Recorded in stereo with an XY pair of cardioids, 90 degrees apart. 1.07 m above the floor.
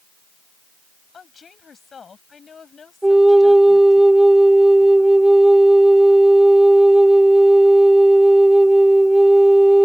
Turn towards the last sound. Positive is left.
turn(degrees=-15)